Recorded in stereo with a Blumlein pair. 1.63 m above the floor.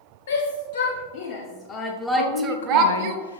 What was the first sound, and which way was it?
A shout, 65° left.